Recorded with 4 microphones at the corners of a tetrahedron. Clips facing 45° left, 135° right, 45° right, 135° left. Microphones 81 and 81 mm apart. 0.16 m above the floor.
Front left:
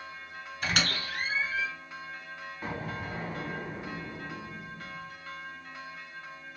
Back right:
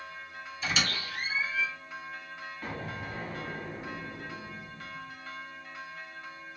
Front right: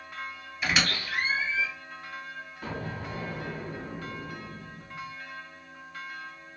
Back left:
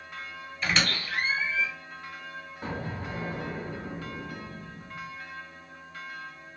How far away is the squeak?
About 1.3 m.